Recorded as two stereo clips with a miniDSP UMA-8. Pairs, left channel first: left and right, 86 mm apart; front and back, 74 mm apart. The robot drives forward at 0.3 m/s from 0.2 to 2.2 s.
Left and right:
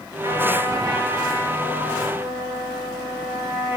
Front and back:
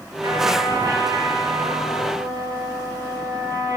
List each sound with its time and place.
0.2 s a trumpet: 140° right, 2.5 m; by 3.8 s 150° right, 2.5 m